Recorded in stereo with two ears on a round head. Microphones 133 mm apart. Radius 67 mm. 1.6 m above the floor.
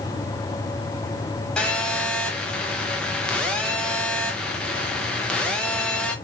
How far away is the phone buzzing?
About 0.8 m.